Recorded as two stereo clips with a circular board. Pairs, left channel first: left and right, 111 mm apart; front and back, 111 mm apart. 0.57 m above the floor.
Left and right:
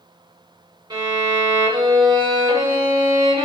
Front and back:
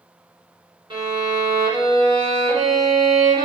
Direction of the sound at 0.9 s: 140° right.